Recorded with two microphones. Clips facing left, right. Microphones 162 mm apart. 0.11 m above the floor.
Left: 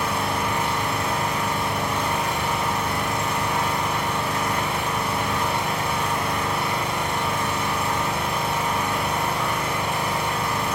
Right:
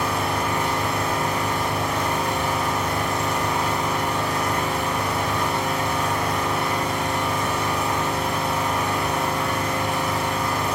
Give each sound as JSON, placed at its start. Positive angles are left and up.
{"t": 0.0, "sound": "an engine running", "side_deg": -35, "distance_m": 1.2}